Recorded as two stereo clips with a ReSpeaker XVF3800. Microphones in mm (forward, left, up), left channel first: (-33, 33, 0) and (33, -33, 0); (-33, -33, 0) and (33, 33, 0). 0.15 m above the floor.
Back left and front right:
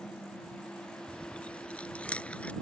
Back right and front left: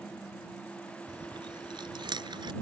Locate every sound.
1.1 s chewing: 60° left